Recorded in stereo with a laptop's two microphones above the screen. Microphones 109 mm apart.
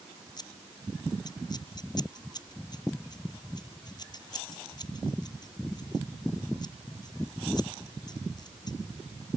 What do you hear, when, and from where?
0.4 s scissors: 40° left (ahead or behind)